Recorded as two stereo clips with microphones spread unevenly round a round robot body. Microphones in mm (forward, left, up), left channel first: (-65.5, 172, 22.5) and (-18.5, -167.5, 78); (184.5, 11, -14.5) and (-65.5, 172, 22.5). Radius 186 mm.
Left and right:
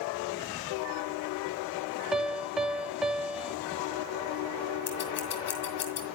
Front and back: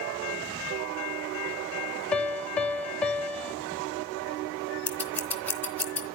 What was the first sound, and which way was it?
A piano, 25° left.